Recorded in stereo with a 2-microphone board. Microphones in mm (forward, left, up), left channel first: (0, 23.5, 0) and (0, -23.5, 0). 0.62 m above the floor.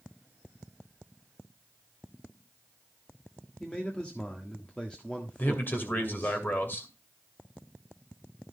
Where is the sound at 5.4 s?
45° left (ahead or behind), 2.5 m.